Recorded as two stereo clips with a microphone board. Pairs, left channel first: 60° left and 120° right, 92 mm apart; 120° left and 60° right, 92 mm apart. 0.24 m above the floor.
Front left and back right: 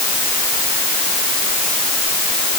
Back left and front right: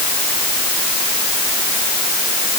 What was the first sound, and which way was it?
Only background noise.